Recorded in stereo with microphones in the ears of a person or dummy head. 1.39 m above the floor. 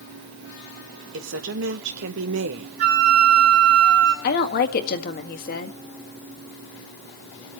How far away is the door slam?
No door slam in this recording.